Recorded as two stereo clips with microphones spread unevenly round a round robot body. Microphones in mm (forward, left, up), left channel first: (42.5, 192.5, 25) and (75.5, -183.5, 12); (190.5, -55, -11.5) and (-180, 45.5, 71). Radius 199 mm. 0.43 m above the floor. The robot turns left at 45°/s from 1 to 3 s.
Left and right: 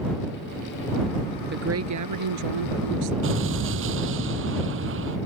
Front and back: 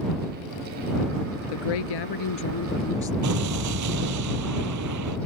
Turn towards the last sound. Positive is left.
turn(degrees=-145)